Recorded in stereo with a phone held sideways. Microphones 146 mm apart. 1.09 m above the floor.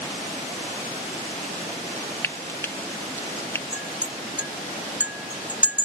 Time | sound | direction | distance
2.2 | frying | 15° left (ahead or behind) | ?
3.7 | a clink | 10° right (ahead or behind) | ?